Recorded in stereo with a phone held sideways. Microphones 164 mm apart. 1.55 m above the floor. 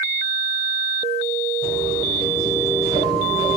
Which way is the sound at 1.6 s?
40° right (ahead or behind).